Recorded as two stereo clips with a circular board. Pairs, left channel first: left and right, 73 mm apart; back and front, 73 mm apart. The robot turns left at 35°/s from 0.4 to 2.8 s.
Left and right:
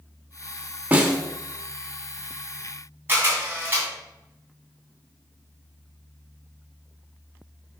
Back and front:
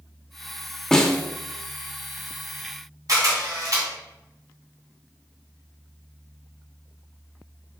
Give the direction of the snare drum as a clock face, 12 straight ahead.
4 o'clock.